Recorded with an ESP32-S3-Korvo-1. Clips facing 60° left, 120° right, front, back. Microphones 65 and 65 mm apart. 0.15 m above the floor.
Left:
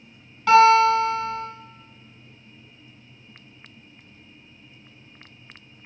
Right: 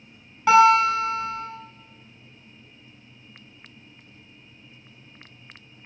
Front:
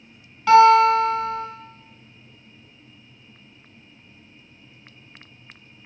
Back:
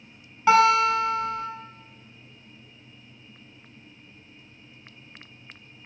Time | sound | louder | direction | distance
0.5 | a guitar | left 1 dB, front 6 dB | 160° right | 0.6 m